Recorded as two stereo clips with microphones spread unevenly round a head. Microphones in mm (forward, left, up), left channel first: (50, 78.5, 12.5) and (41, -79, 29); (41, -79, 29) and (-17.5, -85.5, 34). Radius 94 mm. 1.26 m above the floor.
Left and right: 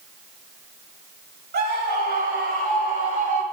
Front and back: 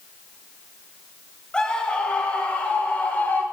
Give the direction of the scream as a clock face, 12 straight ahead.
2 o'clock.